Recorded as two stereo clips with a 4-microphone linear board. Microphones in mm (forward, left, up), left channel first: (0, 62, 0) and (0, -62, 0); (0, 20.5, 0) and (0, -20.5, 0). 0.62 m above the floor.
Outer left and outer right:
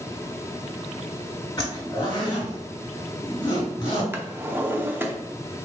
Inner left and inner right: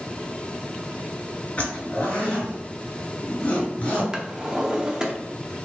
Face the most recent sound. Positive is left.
turn(degrees=-15)  # may be behind; listen again after turning